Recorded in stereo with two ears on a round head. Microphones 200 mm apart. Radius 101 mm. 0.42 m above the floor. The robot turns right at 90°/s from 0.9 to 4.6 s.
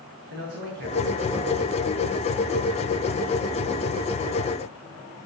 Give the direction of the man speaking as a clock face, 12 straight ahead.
4 o'clock.